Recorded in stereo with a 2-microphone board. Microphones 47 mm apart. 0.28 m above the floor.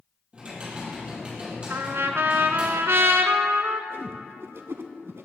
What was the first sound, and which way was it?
Typing on a keyboard, 25° right (ahead or behind).